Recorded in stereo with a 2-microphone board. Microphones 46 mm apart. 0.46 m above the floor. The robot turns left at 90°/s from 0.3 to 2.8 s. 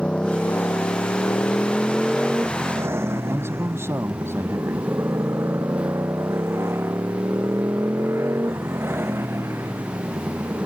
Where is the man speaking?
65° right (ahead or behind).